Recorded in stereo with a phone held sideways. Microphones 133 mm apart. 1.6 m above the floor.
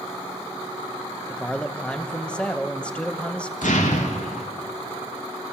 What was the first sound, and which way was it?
A man speaking, 10° left (ahead or behind).